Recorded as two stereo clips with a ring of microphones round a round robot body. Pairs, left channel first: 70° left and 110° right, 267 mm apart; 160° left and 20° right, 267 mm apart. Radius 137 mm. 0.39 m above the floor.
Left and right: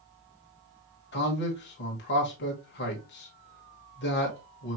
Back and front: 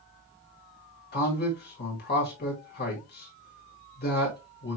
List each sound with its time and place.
1.1 s a man speaking: 110° left, 1.4 m